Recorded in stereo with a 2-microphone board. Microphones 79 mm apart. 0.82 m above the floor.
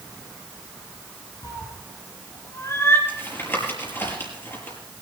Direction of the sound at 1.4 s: 65° left (ahead or behind).